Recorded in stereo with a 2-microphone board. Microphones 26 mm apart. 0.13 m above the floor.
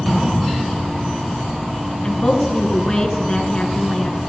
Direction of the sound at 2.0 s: 30° left (ahead or behind).